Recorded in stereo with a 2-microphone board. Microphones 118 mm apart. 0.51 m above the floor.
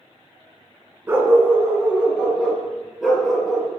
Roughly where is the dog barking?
Right.